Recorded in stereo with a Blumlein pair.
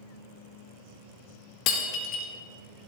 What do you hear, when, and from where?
1.7 s breaking glass: 40° left, 1.7 m